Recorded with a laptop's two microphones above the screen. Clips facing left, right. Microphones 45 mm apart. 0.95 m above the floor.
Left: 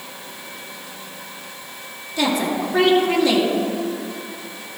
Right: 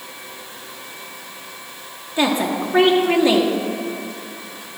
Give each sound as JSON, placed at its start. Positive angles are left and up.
{"t": 2.2, "sound": "a woman speaking", "side_deg": -25, "distance_m": 2.0}